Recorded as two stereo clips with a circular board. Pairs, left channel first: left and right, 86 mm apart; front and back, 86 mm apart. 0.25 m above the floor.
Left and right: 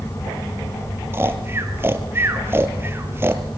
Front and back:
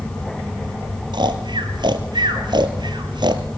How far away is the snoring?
About 1.1 m.